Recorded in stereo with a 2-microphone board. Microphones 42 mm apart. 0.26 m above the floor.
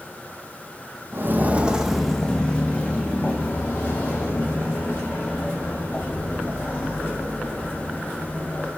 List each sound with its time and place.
1.1 s footsteps: 55° right (ahead or behind), 0.5 m; by 8.7 s 50° left (ahead or behind), 4 m